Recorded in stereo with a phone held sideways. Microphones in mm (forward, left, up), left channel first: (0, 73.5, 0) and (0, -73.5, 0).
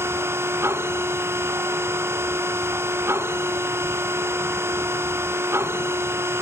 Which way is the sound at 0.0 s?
15° right (ahead or behind).